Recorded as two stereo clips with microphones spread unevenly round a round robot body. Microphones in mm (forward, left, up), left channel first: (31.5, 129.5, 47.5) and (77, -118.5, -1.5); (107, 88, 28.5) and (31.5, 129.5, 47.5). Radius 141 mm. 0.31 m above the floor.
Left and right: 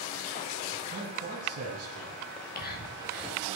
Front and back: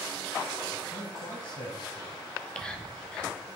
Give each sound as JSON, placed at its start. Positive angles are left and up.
{"t": 0.9, "sound": "a man speaking", "azimuth_deg": -30, "distance_m": 2.0}
{"t": 2.3, "sound": "whispering", "azimuth_deg": 45, "distance_m": 1.9}